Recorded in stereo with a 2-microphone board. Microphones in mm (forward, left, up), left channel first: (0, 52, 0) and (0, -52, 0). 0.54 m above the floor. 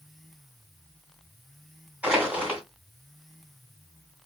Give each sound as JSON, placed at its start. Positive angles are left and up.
{"t": 2.0, "sound": "crushing", "side_deg": -15, "distance_m": 1.8}